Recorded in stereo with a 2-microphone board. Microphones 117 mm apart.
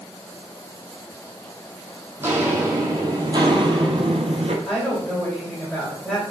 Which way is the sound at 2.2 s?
20° right (ahead or behind).